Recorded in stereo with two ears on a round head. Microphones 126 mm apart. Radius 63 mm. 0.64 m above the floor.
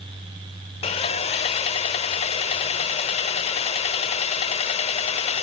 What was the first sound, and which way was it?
Sawing, 45° left (ahead or behind).